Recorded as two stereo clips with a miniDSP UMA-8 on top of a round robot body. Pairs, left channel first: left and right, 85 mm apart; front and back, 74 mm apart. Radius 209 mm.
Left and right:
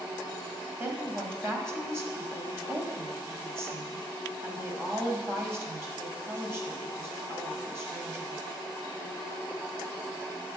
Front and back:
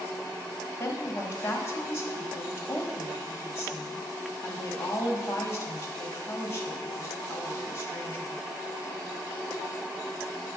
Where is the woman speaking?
35° right, 1.6 m.